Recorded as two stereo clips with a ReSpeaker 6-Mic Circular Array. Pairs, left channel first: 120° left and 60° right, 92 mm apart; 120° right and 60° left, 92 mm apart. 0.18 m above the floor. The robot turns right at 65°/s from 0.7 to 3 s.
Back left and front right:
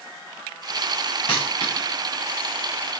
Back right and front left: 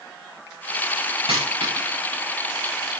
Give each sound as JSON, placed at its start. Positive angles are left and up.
{"t": 1.3, "sound": "a dropped coin", "azimuth_deg": 75, "distance_m": 7.5}